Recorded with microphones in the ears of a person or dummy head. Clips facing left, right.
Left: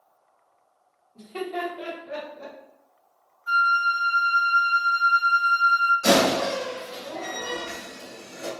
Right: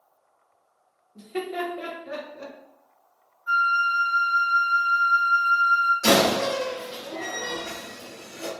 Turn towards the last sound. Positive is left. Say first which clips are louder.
# even
turn(degrees=-40)  # may be behind; listen again after turning